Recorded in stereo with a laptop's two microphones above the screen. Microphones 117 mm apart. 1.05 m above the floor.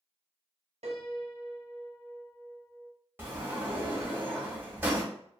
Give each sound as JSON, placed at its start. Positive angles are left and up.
{"t": 0.8, "sound": "a piano", "side_deg": -75, "distance_m": 0.6}
{"t": 3.2, "sound": "a sliding door", "side_deg": -20, "distance_m": 0.9}